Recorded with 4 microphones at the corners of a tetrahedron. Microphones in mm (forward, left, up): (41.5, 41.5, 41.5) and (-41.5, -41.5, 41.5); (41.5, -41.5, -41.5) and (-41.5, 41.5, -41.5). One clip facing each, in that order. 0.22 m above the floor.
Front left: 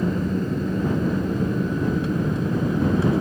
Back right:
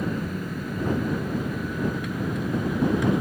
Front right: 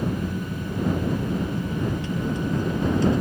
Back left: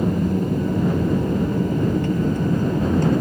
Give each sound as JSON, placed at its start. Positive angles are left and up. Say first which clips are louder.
{"t": 0.0, "sound": "an aircraft", "louder": "front left 5 dB, back left 7 dB", "azimuth_deg": 105}